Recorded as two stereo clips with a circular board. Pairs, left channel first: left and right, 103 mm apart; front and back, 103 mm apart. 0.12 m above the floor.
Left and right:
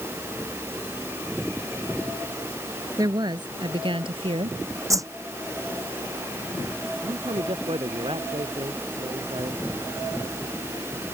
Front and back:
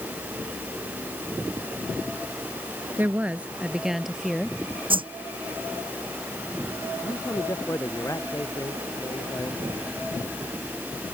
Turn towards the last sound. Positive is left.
turn(degrees=-60)